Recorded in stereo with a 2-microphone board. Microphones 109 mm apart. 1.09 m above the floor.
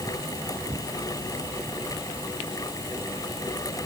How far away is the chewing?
No chewing in this recording.